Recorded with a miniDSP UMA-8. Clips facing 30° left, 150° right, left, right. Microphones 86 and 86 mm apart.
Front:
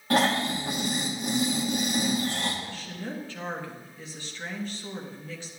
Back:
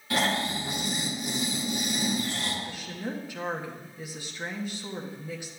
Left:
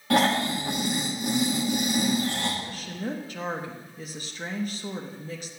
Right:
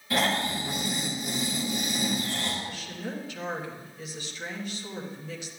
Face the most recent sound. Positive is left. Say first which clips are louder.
# back 1 dB, left 3 dB
turn(degrees=135)